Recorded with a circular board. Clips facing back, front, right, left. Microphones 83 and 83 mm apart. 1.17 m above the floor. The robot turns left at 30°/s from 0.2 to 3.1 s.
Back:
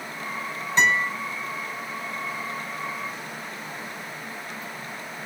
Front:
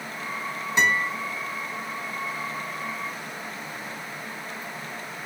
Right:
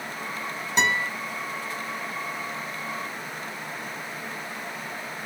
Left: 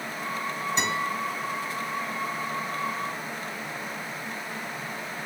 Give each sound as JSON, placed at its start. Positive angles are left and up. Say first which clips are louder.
{"t": 0.8, "sound": "a guitar", "louder": "back 1 dB, right 5 dB", "azimuth_deg": -75, "distance_m": 2.5}